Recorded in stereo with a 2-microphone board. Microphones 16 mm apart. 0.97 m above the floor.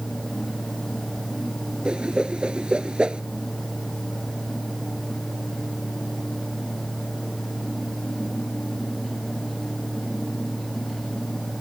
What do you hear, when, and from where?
1.9 s a whoosh: 85° right